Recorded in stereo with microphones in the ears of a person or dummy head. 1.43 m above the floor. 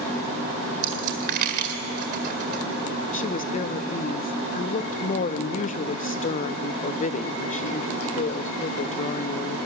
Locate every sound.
0.8 s a dropped coin: 45° right (ahead or behind), 1.9 m
3.1 s a woman speaking: 40° left (ahead or behind), 0.6 m